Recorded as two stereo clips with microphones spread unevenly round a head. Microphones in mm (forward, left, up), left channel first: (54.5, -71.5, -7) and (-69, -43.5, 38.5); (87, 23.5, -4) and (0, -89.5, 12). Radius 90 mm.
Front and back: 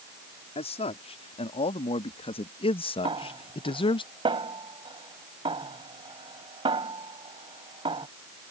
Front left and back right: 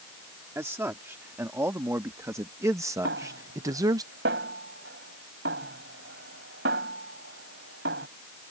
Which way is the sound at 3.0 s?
150° right.